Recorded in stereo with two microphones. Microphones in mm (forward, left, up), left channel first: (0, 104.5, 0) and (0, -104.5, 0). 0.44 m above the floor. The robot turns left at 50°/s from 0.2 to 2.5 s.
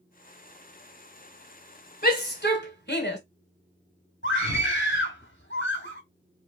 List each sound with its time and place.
2.0 s a shout: 50° left (ahead or behind), 2.5 m; by 3.2 s 60° left (ahead or behind), 2.5 m
4.2 s a scream: 70° left (ahead or behind), 2.5 m